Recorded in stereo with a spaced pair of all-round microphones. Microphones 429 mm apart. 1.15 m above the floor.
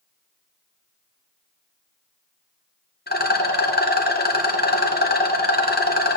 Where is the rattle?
20° left (ahead or behind), 1.0 m.